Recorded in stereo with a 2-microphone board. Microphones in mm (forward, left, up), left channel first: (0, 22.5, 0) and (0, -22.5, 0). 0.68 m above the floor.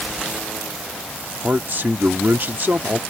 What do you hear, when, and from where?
1.4 s a man speaking: 50° right (ahead or behind)